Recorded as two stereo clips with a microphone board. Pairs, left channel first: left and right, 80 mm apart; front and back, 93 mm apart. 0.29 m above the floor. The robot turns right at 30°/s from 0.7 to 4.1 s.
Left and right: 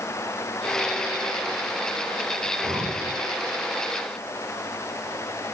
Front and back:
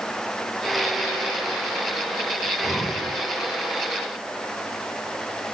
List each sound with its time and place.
2.4 s breathing: 105° right, 8 m; by 3.1 s 85° right, 8 m